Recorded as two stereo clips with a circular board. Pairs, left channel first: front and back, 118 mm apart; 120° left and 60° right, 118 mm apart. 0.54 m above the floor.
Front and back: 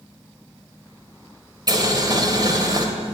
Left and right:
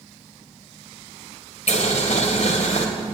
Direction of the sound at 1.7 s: 125° left.